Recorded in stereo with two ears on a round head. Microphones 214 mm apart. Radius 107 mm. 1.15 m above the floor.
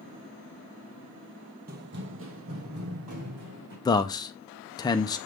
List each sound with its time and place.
1.7 s running footsteps: 40° right (ahead or behind), 1.4 m; by 3.8 s 70° right (ahead or behind), 4 m
3.9 s a man speaking: 15° left (ahead or behind), 0.6 m